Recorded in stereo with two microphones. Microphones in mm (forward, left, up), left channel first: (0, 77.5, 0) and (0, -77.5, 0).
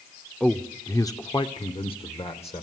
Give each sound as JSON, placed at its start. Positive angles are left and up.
{"t": 0.4, "sound": "a man speaking", "side_deg": 5, "distance_m": 0.9}